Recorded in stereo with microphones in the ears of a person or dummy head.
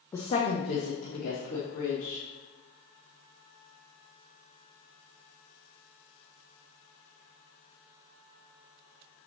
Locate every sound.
0.1 s a woman speaking: 10° left (ahead or behind), 0.7 m; by 2.2 s 80° left, 3 m